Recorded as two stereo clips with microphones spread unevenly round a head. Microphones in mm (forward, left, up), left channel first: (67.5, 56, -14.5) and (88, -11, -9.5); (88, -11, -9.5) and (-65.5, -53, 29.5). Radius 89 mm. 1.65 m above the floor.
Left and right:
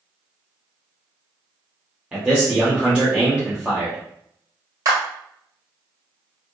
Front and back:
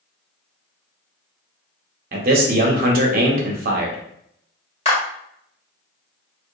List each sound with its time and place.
2.1 s a man speaking: 150° right, 0.7 m
4.8 s a clap: 45° right, 1.6 m